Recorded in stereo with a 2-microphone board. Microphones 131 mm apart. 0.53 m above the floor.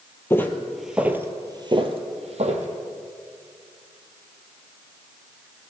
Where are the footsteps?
20° left (ahead or behind), 1.0 m; by 2.7 s 60° right (ahead or behind), 1.3 m.